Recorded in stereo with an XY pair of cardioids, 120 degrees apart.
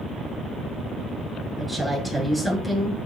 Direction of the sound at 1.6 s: 5° left.